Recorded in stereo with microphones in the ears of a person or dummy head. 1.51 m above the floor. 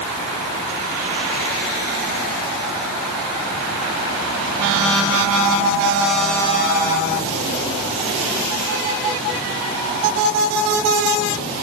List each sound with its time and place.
Only background noise.